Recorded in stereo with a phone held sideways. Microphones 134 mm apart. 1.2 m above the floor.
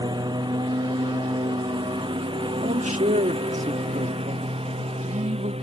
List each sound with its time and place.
0.0 s a lawn mower: 30° right (ahead or behind); by 5.6 s 50° right (ahead or behind)
2.6 s a man speaking: 65° right (ahead or behind)